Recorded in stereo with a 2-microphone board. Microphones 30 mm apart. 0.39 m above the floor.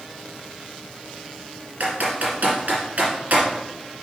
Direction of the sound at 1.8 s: 60° right (ahead or behind).